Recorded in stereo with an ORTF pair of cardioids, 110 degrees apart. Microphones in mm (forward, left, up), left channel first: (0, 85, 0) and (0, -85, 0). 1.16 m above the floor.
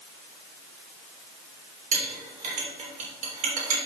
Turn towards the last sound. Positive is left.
turn(degrees=-50)